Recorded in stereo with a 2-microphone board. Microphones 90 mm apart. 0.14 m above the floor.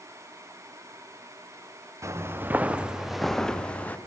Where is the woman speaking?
No woman speaking in this recording.